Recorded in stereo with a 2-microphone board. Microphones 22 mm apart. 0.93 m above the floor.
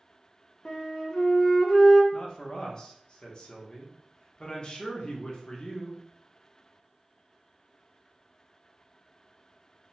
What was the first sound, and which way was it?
A flute, 30° left (ahead or behind).